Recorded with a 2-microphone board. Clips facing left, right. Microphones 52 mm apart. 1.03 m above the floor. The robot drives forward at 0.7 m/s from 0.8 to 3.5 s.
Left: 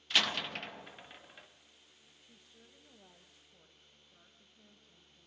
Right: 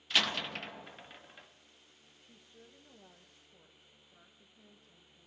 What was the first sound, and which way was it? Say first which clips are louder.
A door slam: even; centre (ahead or behind).